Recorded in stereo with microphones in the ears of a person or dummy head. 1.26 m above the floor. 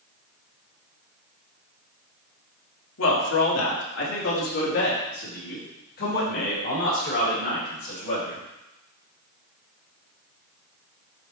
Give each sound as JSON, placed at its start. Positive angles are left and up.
{"t": 3.0, "sound": "a man speaking", "side_deg": 75, "distance_m": 1.5}